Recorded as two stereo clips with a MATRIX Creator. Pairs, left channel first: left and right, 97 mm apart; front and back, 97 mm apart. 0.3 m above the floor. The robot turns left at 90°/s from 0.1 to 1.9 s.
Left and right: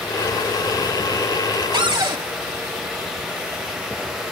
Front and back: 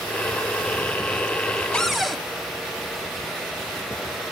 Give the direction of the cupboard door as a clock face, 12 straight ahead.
3 o'clock.